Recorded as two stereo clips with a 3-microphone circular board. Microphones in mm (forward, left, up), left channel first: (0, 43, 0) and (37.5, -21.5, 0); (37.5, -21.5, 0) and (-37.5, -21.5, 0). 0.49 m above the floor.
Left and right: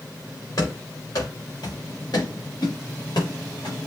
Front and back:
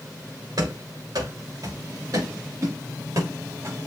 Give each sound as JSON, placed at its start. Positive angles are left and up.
{"t": 0.6, "sound": "running footsteps", "azimuth_deg": 155, "distance_m": 6.0}